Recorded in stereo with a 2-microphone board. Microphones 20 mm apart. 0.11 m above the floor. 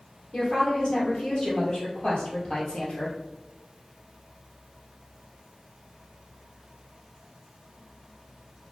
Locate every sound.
0.3 s a woman speaking: 55° left (ahead or behind), 1.9 m